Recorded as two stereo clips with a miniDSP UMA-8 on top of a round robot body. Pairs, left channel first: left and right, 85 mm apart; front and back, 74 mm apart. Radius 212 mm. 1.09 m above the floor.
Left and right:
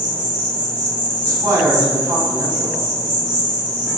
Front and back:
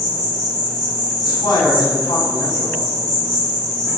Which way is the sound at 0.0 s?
110° left.